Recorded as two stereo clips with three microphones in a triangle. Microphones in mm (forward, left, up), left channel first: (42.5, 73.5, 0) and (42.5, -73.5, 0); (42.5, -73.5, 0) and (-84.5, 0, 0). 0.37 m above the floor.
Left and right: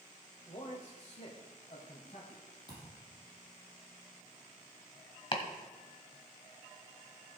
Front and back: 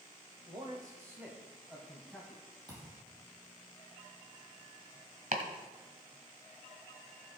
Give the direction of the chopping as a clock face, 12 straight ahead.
7 o'clock.